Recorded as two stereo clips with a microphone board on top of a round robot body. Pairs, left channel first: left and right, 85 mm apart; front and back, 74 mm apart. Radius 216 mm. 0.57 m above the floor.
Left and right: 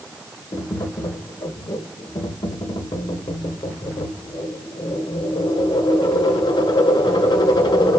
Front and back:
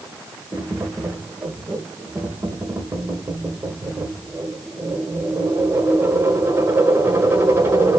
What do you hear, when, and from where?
0.5 s tapping: 125° left, 1.5 m